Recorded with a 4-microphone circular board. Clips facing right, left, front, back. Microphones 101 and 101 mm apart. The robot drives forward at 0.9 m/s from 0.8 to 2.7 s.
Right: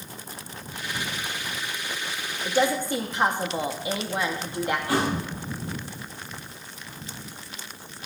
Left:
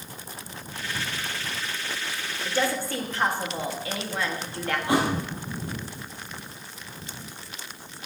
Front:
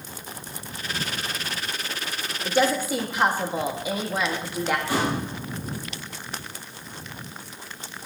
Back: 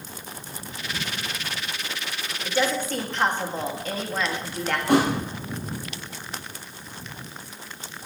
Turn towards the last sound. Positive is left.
turn(degrees=155)